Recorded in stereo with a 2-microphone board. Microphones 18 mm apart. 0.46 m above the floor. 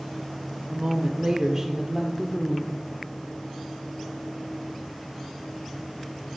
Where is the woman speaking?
50° right (ahead or behind), 1.1 m; by 2.8 s 15° left (ahead or behind), 1.0 m.